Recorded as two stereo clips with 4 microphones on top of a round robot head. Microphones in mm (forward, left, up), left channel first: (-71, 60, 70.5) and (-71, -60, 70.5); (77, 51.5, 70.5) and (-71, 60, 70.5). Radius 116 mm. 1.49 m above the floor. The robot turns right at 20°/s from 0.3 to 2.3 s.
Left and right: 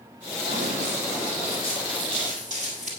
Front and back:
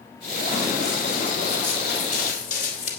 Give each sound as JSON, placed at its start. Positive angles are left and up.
{"t": 0.5, "sound": "running footsteps", "azimuth_deg": -85, "distance_m": 3.5}